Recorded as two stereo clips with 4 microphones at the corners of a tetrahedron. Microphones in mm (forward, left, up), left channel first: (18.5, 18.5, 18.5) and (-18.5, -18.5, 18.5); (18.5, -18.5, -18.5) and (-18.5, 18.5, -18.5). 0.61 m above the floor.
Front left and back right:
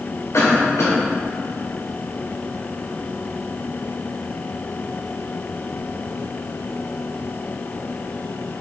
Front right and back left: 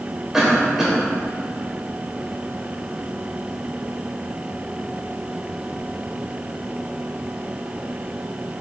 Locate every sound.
0.3 s a cough: 55° left, 2.5 m